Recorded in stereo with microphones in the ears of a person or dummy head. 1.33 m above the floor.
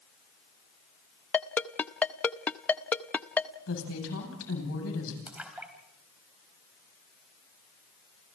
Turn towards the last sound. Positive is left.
turn(degrees=-5)  # may be behind; listen again after turning